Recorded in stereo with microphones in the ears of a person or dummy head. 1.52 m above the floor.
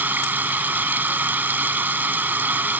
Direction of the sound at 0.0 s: 10° right (ahead or behind).